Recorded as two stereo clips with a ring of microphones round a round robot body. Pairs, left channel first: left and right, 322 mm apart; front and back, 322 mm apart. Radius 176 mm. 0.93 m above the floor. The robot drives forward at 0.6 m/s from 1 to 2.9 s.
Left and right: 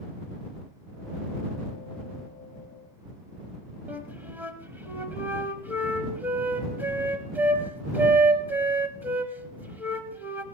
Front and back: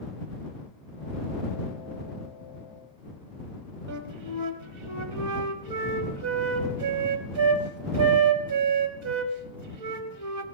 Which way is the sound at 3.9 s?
175° right.